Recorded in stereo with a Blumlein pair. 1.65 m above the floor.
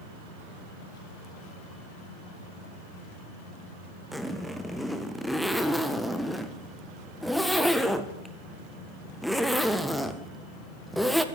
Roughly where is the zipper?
Ahead.